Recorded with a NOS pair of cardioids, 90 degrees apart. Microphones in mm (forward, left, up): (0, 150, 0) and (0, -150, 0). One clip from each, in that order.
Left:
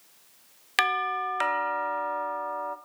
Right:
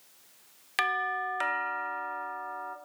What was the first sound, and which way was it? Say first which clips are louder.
A doorbell: left 3 dB; 20° left.